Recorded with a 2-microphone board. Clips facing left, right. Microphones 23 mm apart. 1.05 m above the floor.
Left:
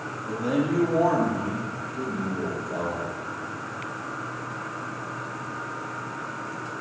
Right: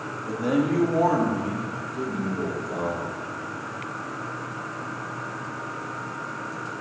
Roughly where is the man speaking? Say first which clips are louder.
Right 2 dB; right.